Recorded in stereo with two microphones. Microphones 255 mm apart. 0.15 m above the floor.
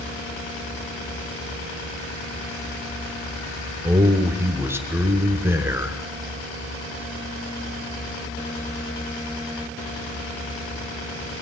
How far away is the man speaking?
About 1.4 m.